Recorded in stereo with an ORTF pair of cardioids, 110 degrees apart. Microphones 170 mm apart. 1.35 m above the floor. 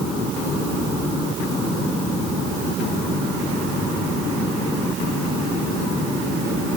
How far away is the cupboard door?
No cupboard door in this recording.